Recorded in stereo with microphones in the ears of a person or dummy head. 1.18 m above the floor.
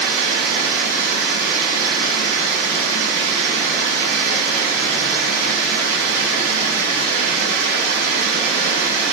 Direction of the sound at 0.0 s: 80° right.